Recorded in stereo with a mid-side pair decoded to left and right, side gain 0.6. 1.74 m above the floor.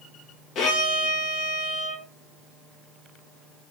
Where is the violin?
55° left, 2 m.